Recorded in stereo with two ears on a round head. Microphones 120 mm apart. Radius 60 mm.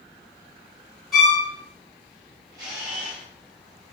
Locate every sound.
1.1 s a violin: centre (ahead or behind), 1.3 m
2.5 s a camera shutter: 70° right (ahead or behind), 1.8 m